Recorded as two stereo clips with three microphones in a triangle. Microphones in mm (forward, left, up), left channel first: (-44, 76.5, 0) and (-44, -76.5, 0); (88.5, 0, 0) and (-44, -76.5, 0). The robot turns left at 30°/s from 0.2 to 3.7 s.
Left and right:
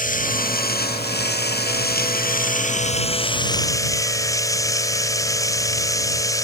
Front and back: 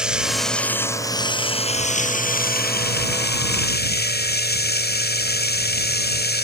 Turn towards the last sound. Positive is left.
turn(degrees=20)